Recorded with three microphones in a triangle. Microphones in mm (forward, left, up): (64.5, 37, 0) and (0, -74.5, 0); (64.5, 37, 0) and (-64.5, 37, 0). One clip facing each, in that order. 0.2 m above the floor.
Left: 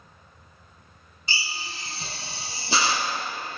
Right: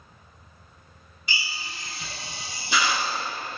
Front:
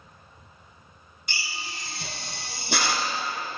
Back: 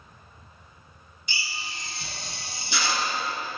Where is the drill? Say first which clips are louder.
Left 1 dB, even; 5° left, 1.1 m.